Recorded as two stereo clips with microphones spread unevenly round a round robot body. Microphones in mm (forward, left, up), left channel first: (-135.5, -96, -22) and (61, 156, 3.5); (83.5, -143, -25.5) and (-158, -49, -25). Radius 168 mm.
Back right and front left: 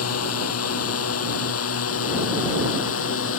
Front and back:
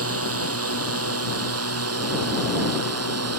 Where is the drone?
170° right; by 3.4 s 175° right.